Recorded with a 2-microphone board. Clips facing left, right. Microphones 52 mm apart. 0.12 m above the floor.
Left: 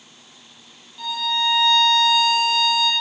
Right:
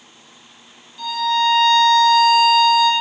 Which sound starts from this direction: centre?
A violin, at 1.0 s.